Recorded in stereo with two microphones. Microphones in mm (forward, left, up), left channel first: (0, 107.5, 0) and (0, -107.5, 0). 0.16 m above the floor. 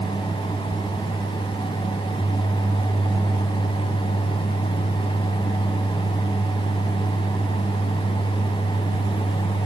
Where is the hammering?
I don't hear hammering.